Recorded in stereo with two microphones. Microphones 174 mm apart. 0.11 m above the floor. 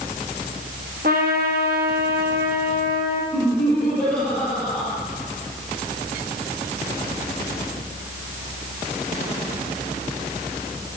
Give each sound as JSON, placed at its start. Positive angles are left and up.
{"t": 1.0, "sound": "a trumpet", "side_deg": -65, "distance_m": 1.6}
{"t": 3.3, "sound": "laughter", "side_deg": 5, "distance_m": 3.0}